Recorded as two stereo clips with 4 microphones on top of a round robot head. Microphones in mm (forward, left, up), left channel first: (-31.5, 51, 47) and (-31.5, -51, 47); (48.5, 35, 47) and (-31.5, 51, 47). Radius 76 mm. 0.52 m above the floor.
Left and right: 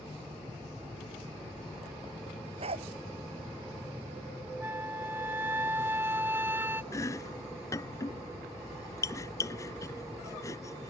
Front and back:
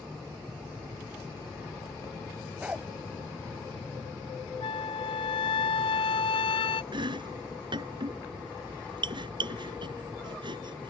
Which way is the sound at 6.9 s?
150° left.